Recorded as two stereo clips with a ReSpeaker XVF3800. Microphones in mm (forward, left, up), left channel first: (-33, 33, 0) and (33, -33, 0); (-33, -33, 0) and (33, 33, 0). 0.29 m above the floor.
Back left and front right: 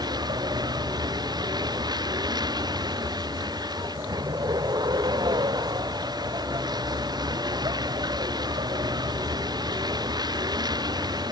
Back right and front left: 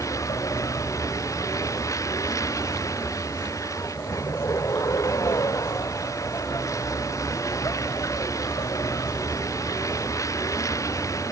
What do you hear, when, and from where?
0.0 s a vehicle: 80° right